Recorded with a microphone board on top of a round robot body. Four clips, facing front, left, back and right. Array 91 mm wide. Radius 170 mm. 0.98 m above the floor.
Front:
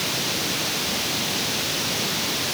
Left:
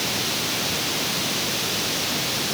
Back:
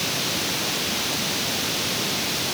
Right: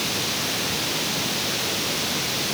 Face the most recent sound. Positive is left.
No sound to turn to.